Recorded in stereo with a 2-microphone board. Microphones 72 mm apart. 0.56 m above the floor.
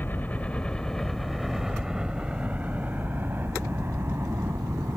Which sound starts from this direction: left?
A helicopter, at 0.0 s.